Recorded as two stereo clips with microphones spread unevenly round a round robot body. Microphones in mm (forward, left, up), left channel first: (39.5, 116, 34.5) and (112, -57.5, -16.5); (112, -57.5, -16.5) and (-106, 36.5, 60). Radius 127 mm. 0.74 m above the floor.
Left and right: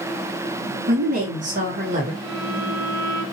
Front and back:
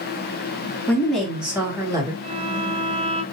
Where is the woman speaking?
95° right, 1.7 m; by 2.1 s 125° right, 2.0 m.